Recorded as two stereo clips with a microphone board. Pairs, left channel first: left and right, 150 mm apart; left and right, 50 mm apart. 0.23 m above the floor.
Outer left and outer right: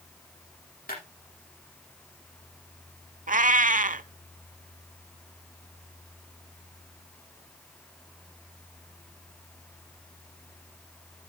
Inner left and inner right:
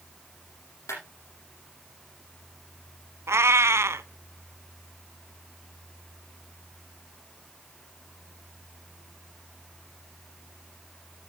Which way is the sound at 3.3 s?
65° right (ahead or behind).